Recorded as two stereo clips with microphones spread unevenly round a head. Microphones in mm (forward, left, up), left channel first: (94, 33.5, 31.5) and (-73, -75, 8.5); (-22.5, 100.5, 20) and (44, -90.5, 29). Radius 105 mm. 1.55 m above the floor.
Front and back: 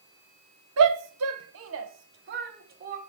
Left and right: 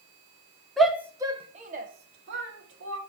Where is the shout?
160° right, 1.2 m; by 3.0 s 95° right, 1.9 m.